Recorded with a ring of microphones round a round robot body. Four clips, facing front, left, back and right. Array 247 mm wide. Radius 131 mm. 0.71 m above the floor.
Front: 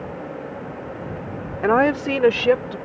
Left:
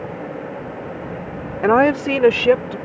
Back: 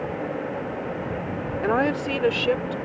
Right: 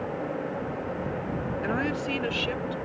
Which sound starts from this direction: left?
A woman speaking, at 1.6 s.